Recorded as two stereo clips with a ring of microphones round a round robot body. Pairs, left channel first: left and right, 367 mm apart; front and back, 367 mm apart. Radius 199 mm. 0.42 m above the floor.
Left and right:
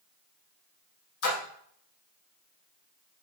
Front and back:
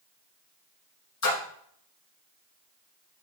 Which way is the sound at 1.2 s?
50° left.